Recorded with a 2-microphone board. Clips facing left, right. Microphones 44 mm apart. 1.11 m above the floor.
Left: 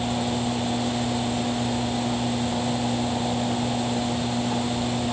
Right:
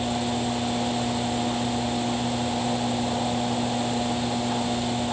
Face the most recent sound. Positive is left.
No sound to turn to.